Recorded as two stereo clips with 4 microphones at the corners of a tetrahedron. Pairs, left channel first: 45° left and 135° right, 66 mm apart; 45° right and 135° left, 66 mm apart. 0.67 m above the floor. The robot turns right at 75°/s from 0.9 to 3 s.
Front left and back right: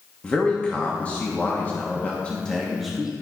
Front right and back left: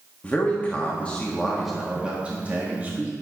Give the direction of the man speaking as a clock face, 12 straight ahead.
12 o'clock.